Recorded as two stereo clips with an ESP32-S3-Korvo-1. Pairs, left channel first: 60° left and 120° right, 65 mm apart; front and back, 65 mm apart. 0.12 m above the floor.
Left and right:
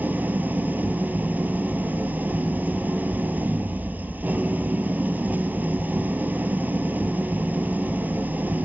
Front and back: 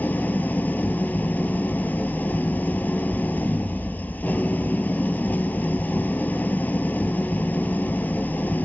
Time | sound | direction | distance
0.0 | an engine running | 60° right | 0.8 m